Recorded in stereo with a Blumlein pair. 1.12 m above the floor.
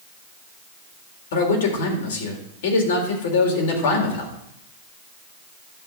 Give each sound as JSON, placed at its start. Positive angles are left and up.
{"t": 1.3, "sound": "a man speaking", "azimuth_deg": 55, "distance_m": 4.0}